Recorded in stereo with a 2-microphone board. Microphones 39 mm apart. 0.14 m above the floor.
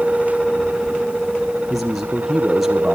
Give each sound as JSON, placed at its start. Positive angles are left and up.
{"t": 1.7, "sound": "a man speaking", "side_deg": -5, "distance_m": 3.0}